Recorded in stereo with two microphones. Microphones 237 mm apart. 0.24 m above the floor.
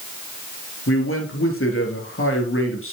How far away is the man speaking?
About 3 m.